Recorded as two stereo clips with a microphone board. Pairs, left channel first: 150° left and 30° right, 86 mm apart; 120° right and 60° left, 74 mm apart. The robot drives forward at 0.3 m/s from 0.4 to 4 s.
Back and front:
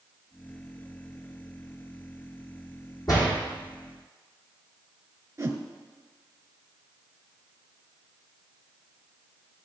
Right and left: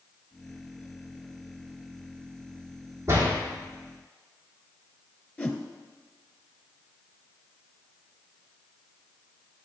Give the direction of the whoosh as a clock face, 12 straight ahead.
2 o'clock.